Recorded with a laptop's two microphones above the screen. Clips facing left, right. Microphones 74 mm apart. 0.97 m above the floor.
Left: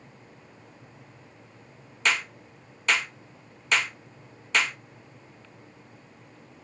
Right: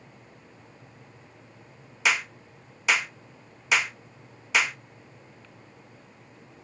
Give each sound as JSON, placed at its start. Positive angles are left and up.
{"t": 2.0, "sound": "a clap", "side_deg": -5, "distance_m": 0.7}